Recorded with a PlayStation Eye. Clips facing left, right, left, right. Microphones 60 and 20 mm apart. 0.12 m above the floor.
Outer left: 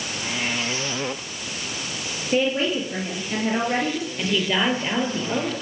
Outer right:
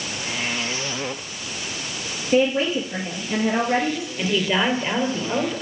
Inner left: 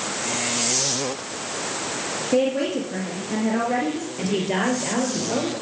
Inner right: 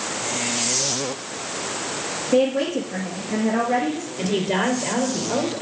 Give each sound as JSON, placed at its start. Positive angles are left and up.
{"t": 2.3, "sound": "a woman speaking", "side_deg": 0, "distance_m": 2.5}
{"t": 4.2, "sound": "a woman speaking", "side_deg": -5, "distance_m": 3.0}